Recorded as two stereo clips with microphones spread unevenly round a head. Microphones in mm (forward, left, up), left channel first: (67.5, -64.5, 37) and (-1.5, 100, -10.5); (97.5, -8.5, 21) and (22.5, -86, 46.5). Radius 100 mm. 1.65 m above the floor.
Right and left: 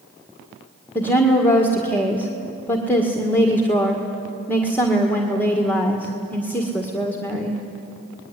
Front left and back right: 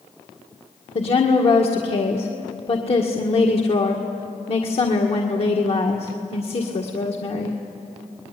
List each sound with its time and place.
0.9 s a woman speaking: 10° left, 1.8 m